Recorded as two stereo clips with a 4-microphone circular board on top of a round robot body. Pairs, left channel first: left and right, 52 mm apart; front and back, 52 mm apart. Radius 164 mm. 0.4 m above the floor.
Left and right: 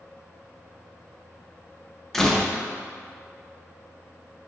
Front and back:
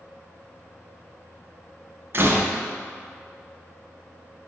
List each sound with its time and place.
2.1 s a door slam: 170° left, 0.6 m